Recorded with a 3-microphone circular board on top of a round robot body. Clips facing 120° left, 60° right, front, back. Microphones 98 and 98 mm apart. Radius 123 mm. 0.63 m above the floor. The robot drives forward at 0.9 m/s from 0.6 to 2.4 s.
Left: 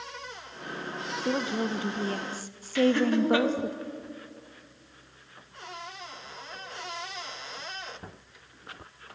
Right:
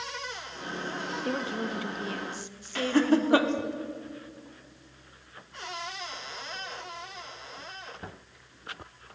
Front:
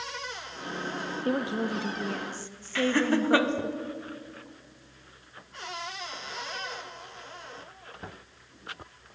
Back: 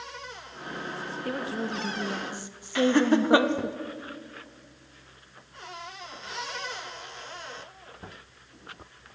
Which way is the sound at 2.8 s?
110° right.